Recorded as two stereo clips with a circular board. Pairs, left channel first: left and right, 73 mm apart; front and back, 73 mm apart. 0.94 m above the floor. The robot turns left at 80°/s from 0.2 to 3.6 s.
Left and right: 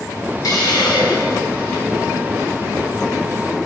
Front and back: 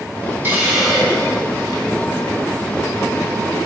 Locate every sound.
0.4 s a hiss: 120° left, 2.5 m; by 1.9 s 5° left, 2.5 m